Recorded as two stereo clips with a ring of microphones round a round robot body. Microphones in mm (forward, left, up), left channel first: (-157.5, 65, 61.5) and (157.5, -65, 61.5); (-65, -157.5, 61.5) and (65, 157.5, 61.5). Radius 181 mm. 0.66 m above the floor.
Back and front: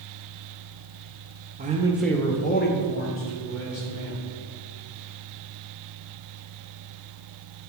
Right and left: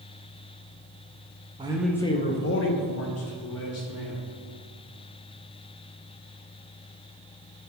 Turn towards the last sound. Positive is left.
turn(degrees=-155)